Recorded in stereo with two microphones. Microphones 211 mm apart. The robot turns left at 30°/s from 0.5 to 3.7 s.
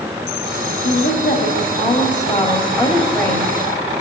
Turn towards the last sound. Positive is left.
turn(degrees=0)